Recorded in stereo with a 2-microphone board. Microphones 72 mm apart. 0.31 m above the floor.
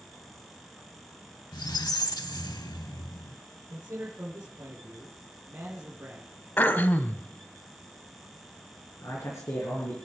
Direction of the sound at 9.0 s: 40° left (ahead or behind).